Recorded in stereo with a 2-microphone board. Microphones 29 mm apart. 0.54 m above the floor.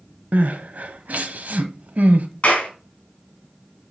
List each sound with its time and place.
0.3 s crying: 60° right (ahead or behind), 0.9 m
2.4 s a clap: 50° left (ahead or behind), 3.5 m